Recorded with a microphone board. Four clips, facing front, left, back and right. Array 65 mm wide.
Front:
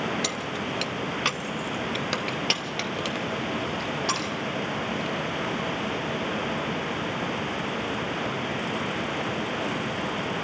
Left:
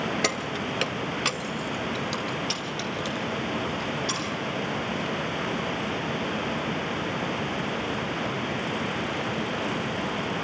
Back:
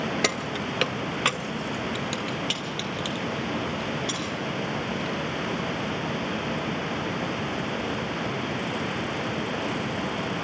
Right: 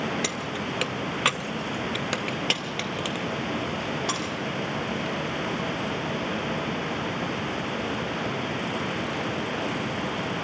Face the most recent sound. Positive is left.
turn(degrees=-45)